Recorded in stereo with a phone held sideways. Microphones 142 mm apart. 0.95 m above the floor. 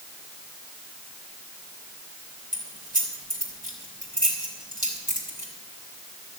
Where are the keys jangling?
75° right (ahead or behind), 3.5 m.